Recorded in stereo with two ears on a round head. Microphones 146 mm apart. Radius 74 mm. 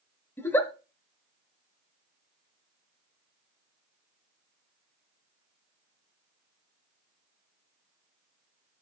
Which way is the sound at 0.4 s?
15° left (ahead or behind).